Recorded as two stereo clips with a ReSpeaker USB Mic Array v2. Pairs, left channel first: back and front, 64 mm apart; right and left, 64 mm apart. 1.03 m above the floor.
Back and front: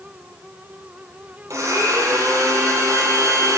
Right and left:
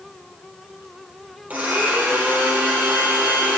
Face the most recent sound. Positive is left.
turn(degrees=25)